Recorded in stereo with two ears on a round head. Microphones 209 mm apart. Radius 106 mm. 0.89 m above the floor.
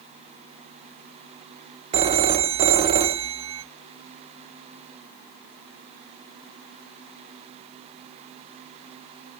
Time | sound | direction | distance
1.9 | a phone ringing | 25° right (ahead or behind) | 0.8 m